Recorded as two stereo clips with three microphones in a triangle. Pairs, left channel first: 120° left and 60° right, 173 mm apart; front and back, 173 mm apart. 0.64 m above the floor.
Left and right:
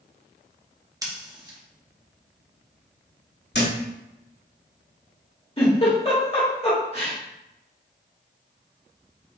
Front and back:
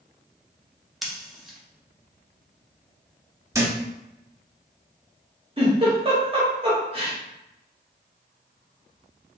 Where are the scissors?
90° right, 1.0 m.